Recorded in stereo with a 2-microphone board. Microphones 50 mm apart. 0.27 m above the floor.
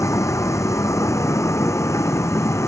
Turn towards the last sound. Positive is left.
turn(degrees=70)  # may be behind; listen again after turning